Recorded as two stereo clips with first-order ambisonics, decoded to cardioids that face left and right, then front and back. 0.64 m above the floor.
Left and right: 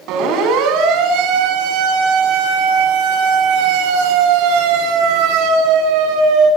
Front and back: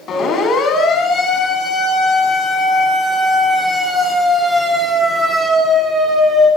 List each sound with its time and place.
0.1 s a siren: 60° right, 7.5 m; by 6.5 s 110° right, 8 m